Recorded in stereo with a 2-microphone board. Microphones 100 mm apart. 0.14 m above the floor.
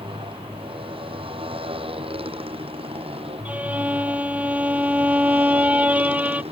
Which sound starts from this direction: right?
A motorcycle, at 0.0 s.